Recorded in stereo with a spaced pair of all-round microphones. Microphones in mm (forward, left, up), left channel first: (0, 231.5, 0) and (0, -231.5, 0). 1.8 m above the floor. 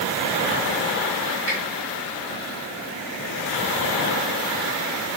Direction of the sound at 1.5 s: 65° left (ahead or behind).